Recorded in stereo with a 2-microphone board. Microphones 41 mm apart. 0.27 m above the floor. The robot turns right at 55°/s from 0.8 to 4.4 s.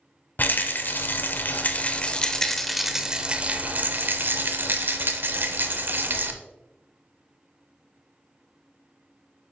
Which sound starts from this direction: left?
A rattle, at 0.4 s.